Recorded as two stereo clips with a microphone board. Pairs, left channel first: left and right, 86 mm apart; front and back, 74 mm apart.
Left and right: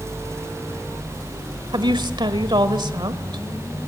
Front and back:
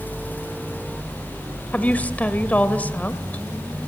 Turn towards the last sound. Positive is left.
turn(degrees=-70)